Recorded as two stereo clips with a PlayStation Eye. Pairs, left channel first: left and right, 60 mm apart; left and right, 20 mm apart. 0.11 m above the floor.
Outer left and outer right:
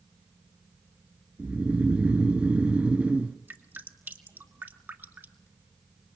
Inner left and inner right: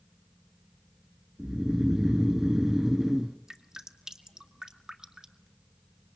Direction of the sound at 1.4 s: 20° right (ahead or behind).